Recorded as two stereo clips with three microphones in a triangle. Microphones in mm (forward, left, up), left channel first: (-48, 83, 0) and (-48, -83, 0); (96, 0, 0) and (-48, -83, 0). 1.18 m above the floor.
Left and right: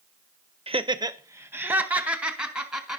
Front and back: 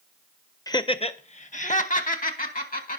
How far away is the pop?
No pop in this recording.